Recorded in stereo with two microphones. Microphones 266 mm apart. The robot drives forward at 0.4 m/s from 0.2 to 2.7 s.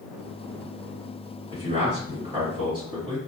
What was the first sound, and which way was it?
A man speaking, 20° right (ahead or behind).